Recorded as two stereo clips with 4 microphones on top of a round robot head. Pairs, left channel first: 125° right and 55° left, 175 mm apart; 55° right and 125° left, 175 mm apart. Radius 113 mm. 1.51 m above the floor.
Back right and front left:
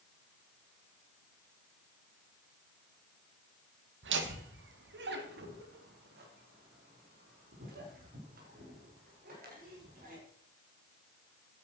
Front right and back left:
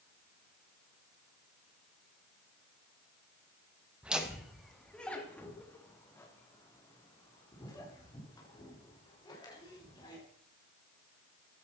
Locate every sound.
4.0 s laughter: 40° left, 2.5 m; by 10.2 s 15° left, 8 m